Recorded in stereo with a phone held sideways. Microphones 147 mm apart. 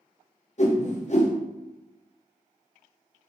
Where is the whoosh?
55° left (ahead or behind), 0.6 m.